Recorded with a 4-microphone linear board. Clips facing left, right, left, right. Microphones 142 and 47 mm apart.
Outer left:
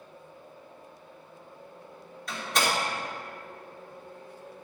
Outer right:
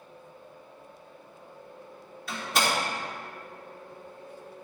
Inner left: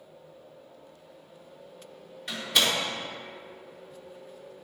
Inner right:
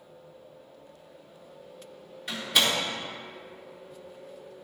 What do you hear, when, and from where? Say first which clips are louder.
2.3 s a door slam: even, even; 5° right (ahead or behind), 2.5 m